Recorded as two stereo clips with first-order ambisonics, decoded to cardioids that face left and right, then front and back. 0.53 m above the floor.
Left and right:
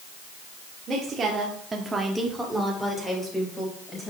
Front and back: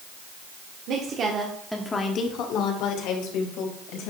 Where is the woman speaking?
155° right, 1.5 m; by 4.1 s 10° left, 3 m.